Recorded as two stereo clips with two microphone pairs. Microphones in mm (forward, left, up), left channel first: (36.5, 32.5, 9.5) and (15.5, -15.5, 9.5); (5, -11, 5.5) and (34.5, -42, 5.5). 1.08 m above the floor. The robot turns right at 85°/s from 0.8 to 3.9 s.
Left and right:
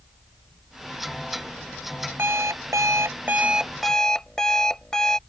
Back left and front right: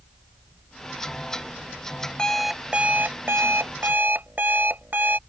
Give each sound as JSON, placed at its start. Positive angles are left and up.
{"t": 2.2, "sound": "an alarm clock", "azimuth_deg": -155}